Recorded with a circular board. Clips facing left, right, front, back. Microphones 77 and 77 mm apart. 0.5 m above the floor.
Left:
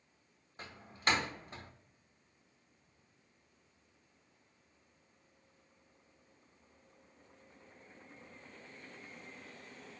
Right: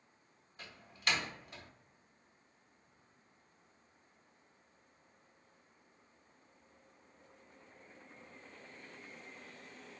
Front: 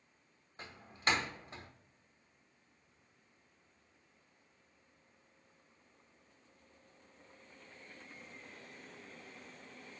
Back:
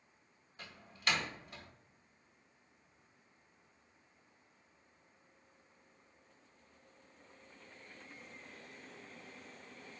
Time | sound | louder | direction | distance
0.6 | a door slam | left 4 dB, front 3 dB | 50° left | 1.0 m